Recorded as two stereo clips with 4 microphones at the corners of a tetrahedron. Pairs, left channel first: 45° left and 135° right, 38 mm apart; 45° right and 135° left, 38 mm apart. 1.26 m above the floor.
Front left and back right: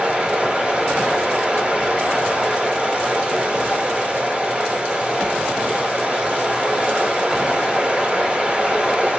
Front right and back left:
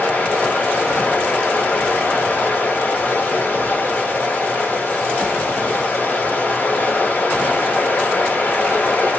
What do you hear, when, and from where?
0.0 s running water: 75° right, 2 m